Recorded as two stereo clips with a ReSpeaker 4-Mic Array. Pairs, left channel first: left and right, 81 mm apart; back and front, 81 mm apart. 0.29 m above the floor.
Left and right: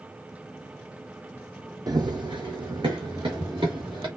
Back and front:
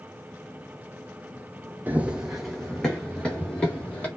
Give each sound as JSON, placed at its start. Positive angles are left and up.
{"t": 1.9, "sound": "running footsteps", "azimuth_deg": -65, "distance_m": 0.5}